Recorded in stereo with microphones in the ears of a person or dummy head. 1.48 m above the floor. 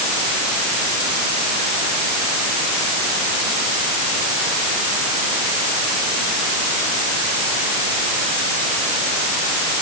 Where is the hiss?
No hiss in this recording.